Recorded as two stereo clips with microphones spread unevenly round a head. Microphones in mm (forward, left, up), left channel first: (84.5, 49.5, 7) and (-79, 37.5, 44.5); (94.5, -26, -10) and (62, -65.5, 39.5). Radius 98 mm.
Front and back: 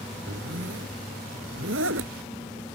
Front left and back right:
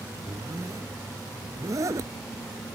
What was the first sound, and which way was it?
A zipper, 145° right.